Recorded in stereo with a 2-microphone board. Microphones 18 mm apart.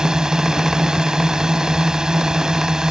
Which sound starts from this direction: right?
A drone, at 0.0 s.